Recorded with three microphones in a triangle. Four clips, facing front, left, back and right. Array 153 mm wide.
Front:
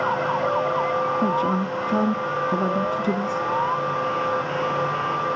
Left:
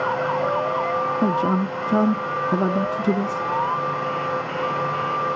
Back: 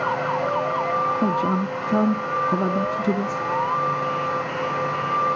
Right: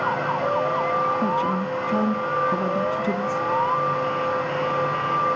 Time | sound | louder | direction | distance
1.2 | a man speaking | left 2 dB, even | 100° left | 0.7 m